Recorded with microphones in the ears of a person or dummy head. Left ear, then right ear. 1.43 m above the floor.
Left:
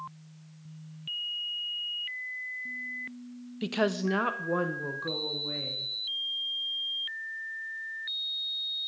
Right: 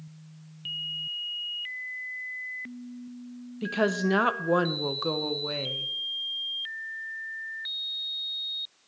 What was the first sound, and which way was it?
A woman speaking, 15° left (ahead or behind).